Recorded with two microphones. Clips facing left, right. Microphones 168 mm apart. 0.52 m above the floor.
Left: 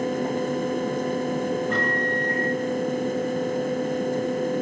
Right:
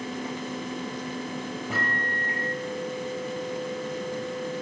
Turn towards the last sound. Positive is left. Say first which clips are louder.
# left 7 dB
turn(degrees=-5)  # may be behind; listen again after turning